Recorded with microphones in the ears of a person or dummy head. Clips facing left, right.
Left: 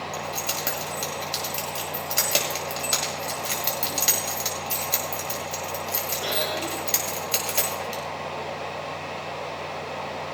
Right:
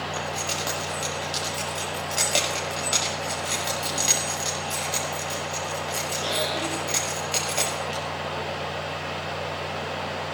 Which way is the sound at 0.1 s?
20° left (ahead or behind).